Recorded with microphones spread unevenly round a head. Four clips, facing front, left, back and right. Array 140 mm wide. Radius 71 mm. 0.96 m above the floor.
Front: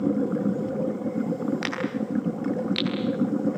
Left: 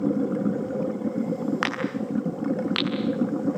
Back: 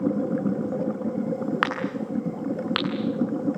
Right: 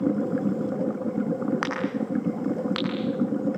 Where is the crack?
175° left, 9 m.